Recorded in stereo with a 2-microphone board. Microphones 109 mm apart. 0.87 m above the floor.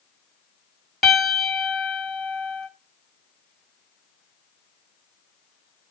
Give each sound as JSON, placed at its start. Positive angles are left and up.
{"t": 1.0, "sound": "a piano", "side_deg": 0, "distance_m": 1.1}